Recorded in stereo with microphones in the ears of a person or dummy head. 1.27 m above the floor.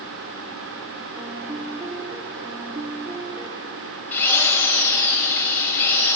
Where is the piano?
20° right (ahead or behind), 1.6 m.